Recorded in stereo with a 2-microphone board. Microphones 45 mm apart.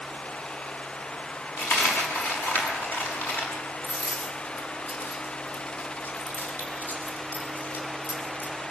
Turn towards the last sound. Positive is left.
turn(degrees=45)  # may be behind; listen again after turning